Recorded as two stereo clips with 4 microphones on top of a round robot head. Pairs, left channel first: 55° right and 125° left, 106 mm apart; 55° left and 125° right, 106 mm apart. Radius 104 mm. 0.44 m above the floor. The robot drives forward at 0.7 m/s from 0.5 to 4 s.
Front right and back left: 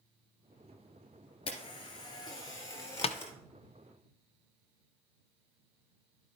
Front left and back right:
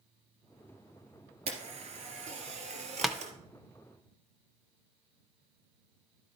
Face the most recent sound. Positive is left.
turn(degrees=-125)